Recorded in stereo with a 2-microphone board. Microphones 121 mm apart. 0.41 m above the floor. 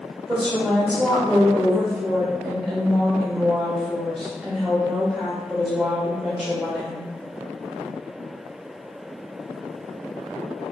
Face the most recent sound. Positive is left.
turn(degrees=0)  # may be behind; listen again after turning